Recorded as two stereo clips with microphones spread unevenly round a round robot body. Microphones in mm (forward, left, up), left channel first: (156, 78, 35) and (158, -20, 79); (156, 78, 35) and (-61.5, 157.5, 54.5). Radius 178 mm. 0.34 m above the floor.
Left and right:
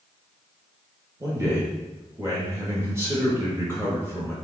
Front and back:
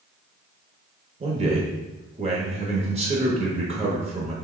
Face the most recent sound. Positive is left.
turn(degrees=180)